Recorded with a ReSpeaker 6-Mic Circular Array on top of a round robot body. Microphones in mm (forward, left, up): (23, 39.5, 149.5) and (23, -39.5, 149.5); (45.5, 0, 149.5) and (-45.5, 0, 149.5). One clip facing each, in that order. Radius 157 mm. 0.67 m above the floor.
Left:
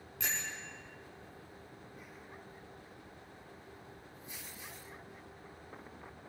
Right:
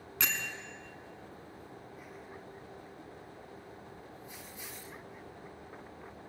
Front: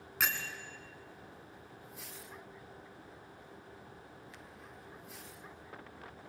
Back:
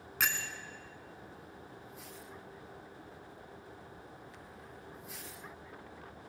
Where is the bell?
90° right, 1.2 m.